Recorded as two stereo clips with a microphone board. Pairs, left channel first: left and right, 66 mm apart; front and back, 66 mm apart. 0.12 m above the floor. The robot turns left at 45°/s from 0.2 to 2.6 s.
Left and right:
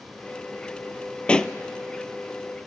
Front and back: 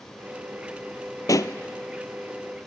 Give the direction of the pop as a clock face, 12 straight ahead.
11 o'clock.